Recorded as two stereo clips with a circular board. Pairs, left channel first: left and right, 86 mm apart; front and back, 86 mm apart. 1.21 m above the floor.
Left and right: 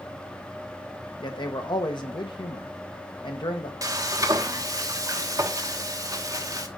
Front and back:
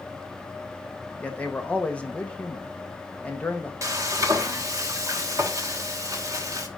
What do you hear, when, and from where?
1.2 s a man speaking: 75° left, 1.3 m
3.8 s frying: 135° right, 1.1 m